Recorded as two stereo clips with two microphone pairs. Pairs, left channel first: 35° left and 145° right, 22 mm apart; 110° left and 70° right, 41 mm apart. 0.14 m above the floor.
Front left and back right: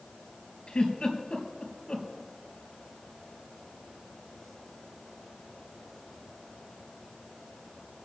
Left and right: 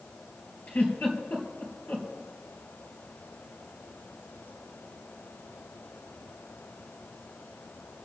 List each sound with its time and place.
0.7 s a giggle: 75° left, 3.5 m